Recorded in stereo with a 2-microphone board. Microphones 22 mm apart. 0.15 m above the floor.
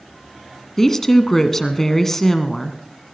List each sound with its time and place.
0.8 s a woman speaking: 20° left (ahead or behind), 1.2 m